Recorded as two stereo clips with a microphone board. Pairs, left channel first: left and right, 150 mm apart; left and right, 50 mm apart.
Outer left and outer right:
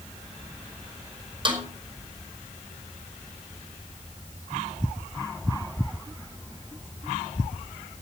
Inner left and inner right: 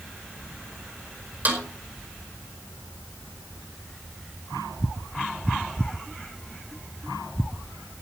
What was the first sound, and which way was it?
A snare drum, 35° right (ahead or behind).